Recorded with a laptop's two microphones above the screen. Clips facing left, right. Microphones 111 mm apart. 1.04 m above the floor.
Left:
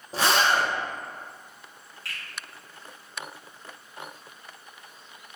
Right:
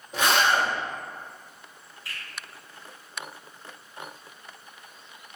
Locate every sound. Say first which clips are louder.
0.1 s a zipper: even; 35° left (ahead or behind), 0.7 m
2.0 s a finger snap: left 1 dB; 70° left (ahead or behind), 1.4 m